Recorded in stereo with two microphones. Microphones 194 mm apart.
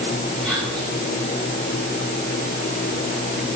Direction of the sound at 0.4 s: 5° left (ahead or behind).